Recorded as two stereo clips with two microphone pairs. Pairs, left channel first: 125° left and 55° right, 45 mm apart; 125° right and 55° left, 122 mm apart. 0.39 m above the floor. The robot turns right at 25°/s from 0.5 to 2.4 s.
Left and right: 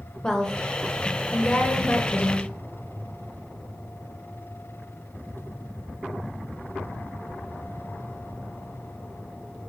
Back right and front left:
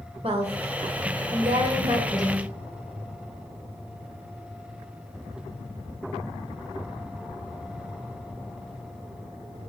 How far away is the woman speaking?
About 1.2 m.